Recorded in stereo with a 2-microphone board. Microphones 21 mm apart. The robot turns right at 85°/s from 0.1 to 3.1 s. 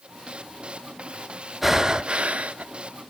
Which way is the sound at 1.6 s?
170° right.